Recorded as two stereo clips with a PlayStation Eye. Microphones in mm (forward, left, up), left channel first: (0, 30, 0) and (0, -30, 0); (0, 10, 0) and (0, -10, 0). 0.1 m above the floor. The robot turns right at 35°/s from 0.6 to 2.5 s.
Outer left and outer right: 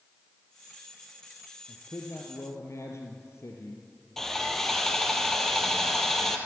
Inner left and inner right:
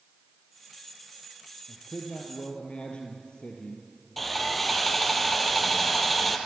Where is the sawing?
5° left (ahead or behind), 2.5 m.